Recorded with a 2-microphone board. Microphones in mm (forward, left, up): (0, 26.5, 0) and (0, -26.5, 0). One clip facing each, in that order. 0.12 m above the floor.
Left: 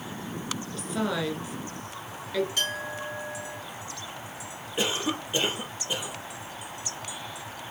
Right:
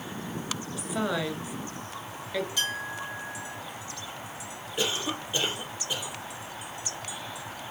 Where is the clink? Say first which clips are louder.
Left 1 dB; 55° left (ahead or behind), 4 m.